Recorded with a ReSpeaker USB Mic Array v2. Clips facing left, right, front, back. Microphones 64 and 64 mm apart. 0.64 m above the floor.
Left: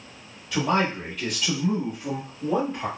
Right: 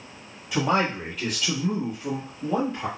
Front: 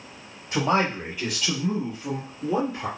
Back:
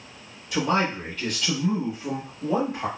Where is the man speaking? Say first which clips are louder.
Even, front 1 dB; 20° right, 1.2 m; by 2.9 s 155° left, 1.5 m.